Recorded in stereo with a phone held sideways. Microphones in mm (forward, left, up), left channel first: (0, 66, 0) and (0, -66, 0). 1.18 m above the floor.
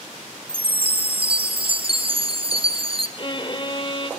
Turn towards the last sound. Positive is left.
turn(degrees=40)  # may be behind; listen again after turning